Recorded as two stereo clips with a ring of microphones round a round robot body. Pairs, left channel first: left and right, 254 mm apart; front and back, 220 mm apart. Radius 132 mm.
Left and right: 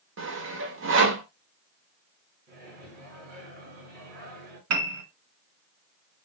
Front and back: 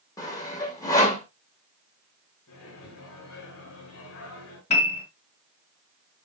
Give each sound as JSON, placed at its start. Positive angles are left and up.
{"t": 0.2, "sound": "sawing", "azimuth_deg": -70, "distance_m": 2.0}
{"t": 2.5, "sound": "a microwave", "azimuth_deg": -40, "distance_m": 6.5}
{"t": 4.7, "sound": "a piano", "azimuth_deg": -65, "distance_m": 1.6}